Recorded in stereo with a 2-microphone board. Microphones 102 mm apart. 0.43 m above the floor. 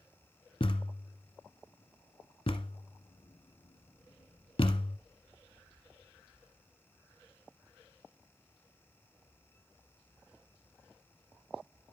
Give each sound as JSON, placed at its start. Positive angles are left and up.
{"t": 0.6, "sound": "a thud", "side_deg": 70, "distance_m": 1.0}